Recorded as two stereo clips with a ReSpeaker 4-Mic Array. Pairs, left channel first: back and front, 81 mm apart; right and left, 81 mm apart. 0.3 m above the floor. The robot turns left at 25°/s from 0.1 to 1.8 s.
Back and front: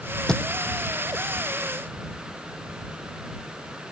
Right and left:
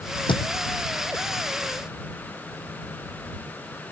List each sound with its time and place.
0.3 s a thud: 100° right